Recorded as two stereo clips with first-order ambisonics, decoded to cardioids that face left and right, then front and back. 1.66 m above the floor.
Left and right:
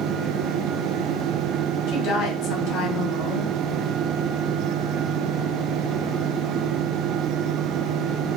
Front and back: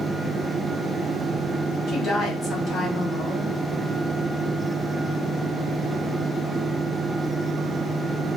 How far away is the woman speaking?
About 1.3 m.